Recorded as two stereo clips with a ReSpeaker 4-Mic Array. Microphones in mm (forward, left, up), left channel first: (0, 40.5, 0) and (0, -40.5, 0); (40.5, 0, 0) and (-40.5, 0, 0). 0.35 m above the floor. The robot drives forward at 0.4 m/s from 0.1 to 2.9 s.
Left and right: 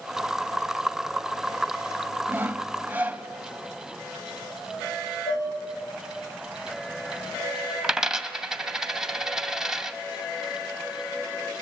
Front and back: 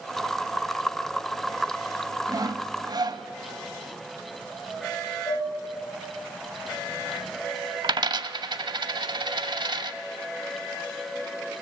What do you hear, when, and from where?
2.3 s sawing: 150° right, 0.7 m; by 3.2 s 160° right, 0.9 m
5.3 s dishes clattering: 75° left, 7.5 m
7.8 s a dropped coin: 170° right, 0.8 m